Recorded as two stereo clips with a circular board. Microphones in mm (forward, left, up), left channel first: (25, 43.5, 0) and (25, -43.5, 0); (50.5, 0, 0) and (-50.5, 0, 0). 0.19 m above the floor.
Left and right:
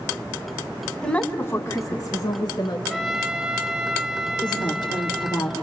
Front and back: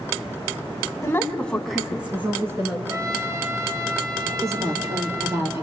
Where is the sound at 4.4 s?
120° left, 3.5 m.